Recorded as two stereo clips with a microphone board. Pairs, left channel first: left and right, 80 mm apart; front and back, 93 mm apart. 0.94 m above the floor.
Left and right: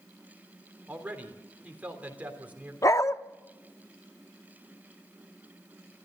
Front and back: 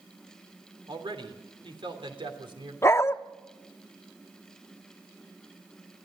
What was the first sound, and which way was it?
A man speaking, 160° right.